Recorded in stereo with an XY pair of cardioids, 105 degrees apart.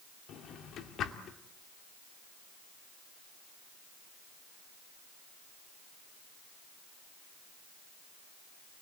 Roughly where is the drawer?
Left.